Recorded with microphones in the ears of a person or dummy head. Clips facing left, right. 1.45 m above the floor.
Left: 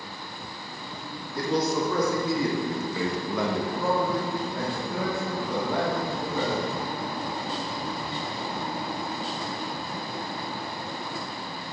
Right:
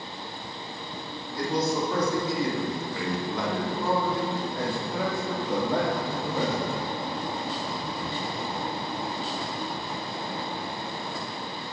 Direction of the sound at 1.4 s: 55° left (ahead or behind).